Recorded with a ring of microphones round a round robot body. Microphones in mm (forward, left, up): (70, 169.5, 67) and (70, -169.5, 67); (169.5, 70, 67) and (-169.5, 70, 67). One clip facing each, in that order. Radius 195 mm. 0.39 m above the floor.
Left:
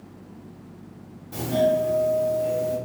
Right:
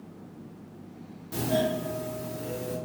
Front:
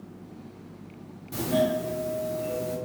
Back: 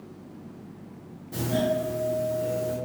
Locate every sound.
1.3 s a doorbell: 50° right, 1.7 m